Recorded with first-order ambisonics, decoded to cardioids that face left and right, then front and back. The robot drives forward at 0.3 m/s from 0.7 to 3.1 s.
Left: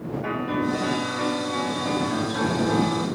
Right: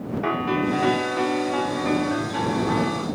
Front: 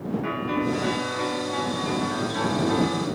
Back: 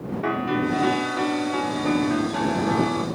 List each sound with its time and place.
0.2 s a piano: 115° right, 1.0 m; by 3.0 s 145° right, 1.4 m